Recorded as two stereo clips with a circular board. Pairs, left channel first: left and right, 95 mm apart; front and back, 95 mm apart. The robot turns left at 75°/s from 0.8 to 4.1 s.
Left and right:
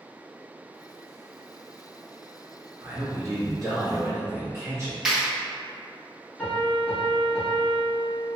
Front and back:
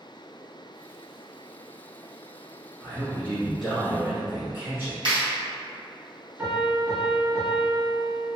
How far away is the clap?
About 1.8 m.